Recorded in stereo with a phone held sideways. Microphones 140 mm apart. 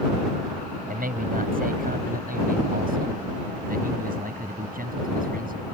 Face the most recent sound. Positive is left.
turn(degrees=-80)